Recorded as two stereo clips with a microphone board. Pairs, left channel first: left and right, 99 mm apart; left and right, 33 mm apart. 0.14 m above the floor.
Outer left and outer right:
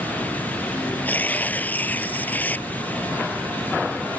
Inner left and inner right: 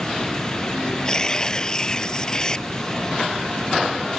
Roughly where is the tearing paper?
Centre.